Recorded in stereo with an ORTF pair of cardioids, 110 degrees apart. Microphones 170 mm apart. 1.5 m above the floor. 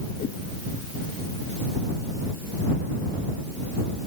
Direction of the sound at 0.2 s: 65° left.